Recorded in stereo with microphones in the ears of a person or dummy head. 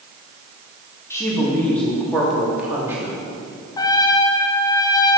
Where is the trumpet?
25° left (ahead or behind), 1.1 m.